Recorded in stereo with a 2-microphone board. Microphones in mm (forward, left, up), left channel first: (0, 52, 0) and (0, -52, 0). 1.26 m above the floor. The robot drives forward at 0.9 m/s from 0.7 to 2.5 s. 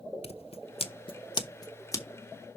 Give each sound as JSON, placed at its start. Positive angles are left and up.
{"t": 0.2, "sound": "scissors", "side_deg": 75, "distance_m": 0.9}